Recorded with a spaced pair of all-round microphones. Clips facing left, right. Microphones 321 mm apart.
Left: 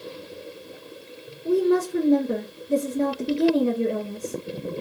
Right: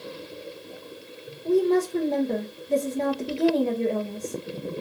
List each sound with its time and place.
1.4 s a woman speaking: 15° left (ahead or behind), 0.6 m